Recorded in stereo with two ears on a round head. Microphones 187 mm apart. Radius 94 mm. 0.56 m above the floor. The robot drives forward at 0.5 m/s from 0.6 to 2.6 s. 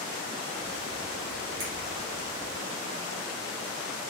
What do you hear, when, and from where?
1.6 s a finger snap: 75° right (ahead or behind), 1.8 m